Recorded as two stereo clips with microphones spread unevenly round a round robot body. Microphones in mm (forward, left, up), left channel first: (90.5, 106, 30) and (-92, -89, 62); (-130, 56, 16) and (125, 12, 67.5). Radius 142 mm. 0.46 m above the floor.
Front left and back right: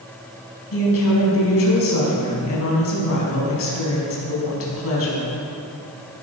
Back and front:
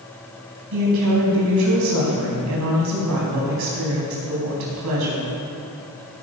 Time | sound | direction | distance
0.7 | a woman speaking | 10° left | 4.5 m